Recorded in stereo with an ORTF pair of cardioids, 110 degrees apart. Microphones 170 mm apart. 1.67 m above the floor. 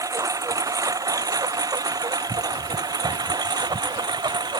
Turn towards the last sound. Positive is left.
turn(degrees=-25)